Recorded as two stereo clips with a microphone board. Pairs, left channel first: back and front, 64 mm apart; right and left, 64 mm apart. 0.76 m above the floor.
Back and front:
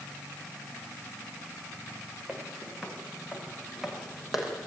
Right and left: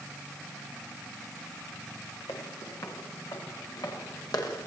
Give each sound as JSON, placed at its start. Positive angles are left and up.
{"t": 2.3, "sound": "footsteps", "azimuth_deg": -75, "distance_m": 5.5}